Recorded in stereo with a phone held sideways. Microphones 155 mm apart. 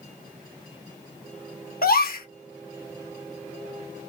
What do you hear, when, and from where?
1.8 s a gasp: 75° left (ahead or behind), 0.7 m